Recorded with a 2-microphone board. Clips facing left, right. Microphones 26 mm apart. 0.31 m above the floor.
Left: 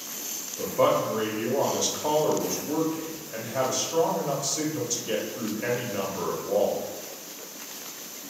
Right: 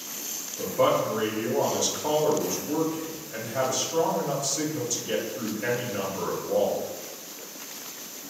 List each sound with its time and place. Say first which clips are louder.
0.6 s a man speaking: even; 20° left (ahead or behind), 0.8 m